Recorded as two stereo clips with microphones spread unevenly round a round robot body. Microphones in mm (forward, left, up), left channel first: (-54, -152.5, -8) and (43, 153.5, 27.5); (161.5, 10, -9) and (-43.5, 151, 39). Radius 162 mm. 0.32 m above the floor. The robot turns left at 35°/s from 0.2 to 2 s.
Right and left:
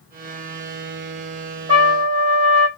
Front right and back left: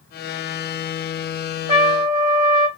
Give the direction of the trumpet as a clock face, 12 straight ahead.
9 o'clock.